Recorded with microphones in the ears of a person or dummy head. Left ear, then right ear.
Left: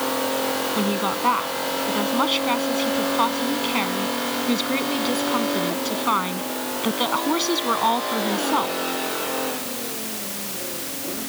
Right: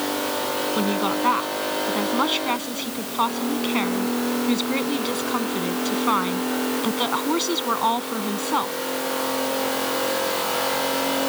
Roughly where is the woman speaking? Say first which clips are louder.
Even; centre.